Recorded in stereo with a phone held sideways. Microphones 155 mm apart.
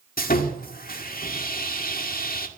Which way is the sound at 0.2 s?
70° left (ahead or behind).